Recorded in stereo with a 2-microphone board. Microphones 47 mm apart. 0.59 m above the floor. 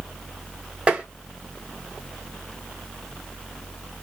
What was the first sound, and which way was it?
Tapping, 20° right (ahead or behind).